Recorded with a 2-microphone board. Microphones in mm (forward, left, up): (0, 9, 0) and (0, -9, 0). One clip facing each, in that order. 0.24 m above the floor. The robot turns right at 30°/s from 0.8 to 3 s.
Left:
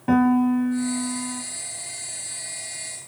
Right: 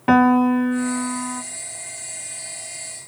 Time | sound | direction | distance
0.1 | a piano | 45° right (ahead or behind) | 0.8 m